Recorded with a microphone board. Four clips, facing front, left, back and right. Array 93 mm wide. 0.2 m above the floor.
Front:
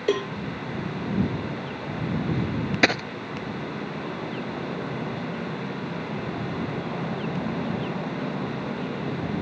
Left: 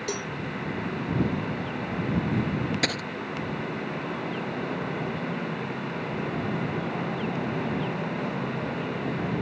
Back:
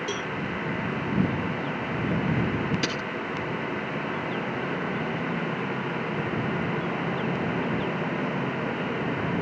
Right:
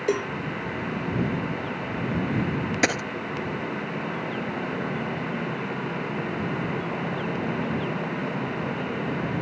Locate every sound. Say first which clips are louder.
0.1 s a cowbell: right 9 dB, front 7 dB; 35° right
2.8 s a dropped coin: right 5 dB, front 8 dB; 20° right